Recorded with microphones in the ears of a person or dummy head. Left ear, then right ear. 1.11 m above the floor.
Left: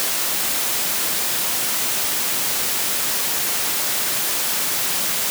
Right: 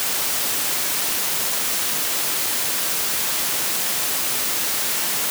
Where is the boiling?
I don't hear boiling.